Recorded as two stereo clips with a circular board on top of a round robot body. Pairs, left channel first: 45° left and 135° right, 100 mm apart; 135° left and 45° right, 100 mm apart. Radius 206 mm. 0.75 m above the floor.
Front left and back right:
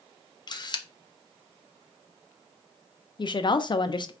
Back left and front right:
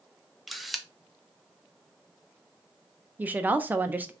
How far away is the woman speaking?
About 0.6 m.